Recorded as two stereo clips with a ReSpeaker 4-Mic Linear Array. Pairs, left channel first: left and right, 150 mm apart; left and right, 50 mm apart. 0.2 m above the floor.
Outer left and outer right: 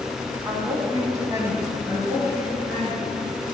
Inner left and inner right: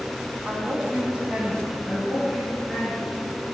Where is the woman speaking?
25° right (ahead or behind), 1.3 m; by 3.2 s 5° right (ahead or behind), 2.5 m.